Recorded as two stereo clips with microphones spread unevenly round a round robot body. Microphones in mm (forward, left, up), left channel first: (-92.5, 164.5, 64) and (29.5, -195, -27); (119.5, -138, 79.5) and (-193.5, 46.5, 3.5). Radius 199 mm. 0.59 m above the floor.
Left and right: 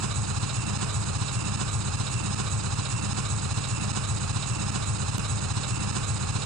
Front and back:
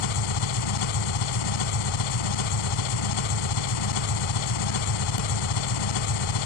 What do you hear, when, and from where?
0.0 s an engine running: 20° right